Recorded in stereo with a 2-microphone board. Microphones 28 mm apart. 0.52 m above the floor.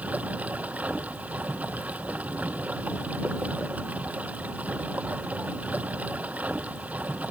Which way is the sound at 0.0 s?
55° right (ahead or behind).